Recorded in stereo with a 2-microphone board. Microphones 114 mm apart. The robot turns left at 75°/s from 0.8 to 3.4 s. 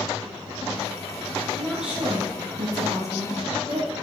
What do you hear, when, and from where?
1.5 s a woman speaking: 15° left, 2 m; by 3.9 s 125° right, 2 m